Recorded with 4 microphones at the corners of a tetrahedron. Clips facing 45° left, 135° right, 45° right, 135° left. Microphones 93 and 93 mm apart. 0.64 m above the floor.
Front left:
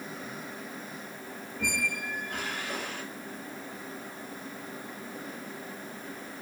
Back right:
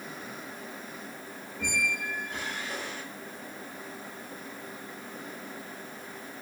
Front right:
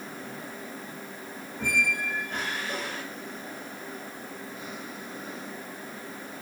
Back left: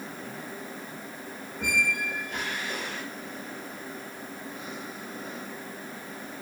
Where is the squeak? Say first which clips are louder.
Back right 1 dB, even; 10° left, 1.8 m.